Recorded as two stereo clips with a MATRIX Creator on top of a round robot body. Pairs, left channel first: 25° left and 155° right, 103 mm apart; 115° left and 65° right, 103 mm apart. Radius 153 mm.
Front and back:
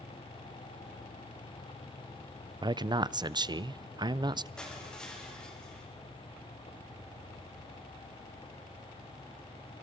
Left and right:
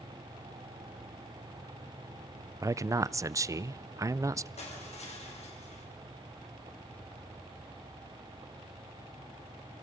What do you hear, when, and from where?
2.6 s a man speaking: 120° right, 0.7 m
4.6 s crushing: 105° left, 5.5 m